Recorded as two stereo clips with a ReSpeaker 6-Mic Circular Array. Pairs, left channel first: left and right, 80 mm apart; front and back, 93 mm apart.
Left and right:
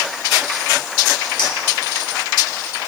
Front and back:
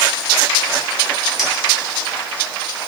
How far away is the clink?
About 2.5 m.